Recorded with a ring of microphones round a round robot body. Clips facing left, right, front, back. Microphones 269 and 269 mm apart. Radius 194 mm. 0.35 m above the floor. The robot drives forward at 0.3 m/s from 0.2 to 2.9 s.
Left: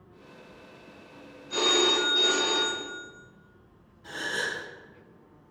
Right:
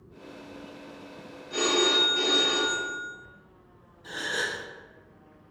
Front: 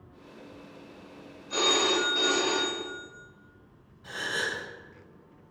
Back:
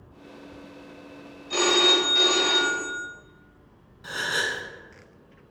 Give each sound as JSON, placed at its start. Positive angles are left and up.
{"t": 1.5, "sound": "a phone ringing", "azimuth_deg": 125, "distance_m": 1.2}
{"t": 4.0, "sound": "a gasp", "azimuth_deg": 170, "distance_m": 1.0}